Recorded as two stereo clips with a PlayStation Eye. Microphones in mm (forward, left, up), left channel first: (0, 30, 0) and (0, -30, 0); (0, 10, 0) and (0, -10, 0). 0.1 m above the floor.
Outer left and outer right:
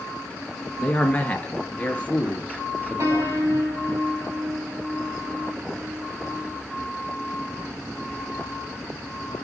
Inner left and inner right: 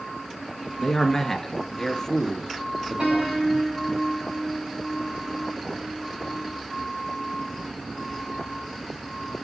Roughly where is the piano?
Right.